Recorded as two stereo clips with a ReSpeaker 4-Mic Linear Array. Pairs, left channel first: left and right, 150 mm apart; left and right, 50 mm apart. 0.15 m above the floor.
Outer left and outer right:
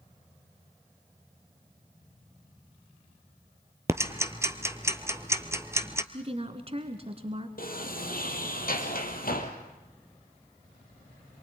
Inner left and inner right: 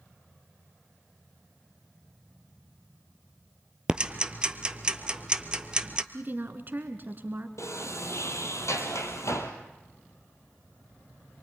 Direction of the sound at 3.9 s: 20° right (ahead or behind).